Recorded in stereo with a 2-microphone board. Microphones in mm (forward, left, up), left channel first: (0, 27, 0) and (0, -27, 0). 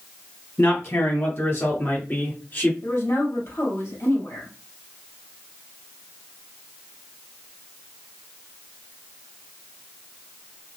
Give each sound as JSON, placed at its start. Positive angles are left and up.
{"t": 0.6, "sound": "a man speaking", "side_deg": 55, "distance_m": 3.0}
{"t": 2.8, "sound": "a woman speaking", "side_deg": 60, "distance_m": 3.0}